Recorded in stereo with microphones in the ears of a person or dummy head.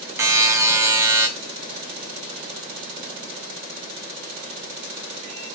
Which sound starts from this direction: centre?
A buzzer, at 0.2 s.